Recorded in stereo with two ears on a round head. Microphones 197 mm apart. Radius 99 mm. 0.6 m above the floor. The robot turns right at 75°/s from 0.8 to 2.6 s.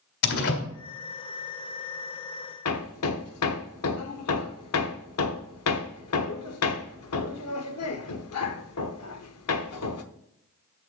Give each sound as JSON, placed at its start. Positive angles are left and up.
{"t": 0.2, "sound": "a door slam", "side_deg": 55, "distance_m": 1.9}
{"t": 2.6, "sound": "hammering", "side_deg": 75, "distance_m": 0.8}